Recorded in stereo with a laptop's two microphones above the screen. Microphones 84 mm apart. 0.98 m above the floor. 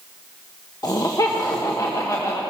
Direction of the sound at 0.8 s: 45° left (ahead or behind).